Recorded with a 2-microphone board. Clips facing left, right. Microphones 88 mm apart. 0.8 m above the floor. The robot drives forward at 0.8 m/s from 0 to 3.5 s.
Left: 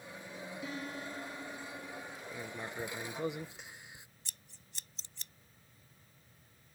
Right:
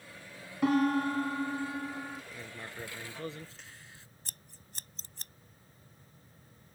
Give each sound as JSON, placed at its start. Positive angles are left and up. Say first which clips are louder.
{"t": 0.6, "sound": "a piano", "louder": "right 18 dB", "side_deg": -75}
{"t": 2.3, "sound": "writing", "louder": "left 3 dB", "side_deg": 10}
{"t": 4.2, "sound": "scissors", "louder": "right 4 dB", "side_deg": -45}